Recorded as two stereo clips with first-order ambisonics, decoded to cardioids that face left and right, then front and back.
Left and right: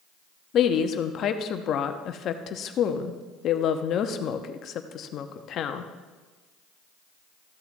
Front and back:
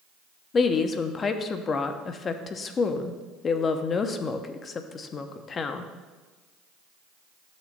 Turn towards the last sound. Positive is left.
turn(degrees=55)